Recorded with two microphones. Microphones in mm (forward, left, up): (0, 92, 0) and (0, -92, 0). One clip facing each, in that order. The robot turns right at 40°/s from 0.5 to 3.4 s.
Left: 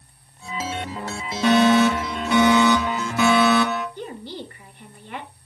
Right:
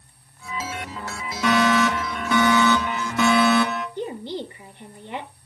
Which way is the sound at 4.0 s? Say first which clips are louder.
Right 4 dB; 20° right (ahead or behind).